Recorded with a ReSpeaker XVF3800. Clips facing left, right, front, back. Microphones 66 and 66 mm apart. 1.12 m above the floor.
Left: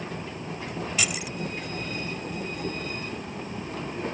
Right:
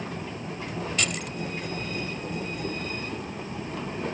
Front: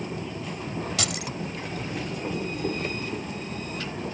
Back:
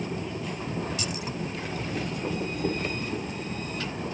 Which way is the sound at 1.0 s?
5° left.